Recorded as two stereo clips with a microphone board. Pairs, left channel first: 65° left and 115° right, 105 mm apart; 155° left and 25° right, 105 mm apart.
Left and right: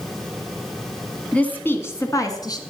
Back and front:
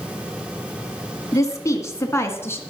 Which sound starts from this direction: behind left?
A woman speaking, at 1.3 s.